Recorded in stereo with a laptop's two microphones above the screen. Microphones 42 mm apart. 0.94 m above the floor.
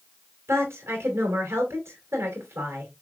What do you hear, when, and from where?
0.5 s a woman speaking: 80° right, 2.5 m